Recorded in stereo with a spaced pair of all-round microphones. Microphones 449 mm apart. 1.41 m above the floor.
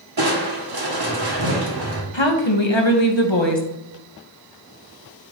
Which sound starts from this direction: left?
A woman speaking, at 2.1 s.